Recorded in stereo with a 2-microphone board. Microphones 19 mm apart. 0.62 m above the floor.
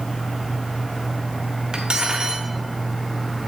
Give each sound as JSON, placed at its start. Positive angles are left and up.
{"t": 1.7, "sound": "cutlery clinking", "side_deg": -45, "distance_m": 1.0}